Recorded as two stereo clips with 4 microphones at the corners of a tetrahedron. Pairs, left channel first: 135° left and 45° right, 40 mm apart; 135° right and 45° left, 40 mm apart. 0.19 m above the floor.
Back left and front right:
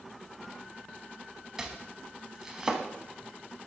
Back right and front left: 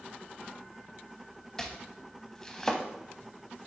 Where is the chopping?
95° right, 0.9 m.